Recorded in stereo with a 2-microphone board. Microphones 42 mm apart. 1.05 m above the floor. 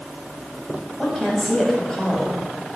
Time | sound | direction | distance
1.0 | a woman speaking | 10° left (ahead or behind) | 6.5 m